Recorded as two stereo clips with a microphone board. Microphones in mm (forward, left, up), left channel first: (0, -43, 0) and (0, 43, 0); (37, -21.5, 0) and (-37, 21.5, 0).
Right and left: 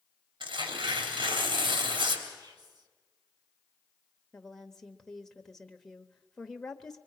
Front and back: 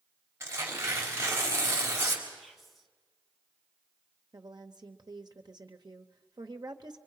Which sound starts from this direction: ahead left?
Whispering, at 2.4 s.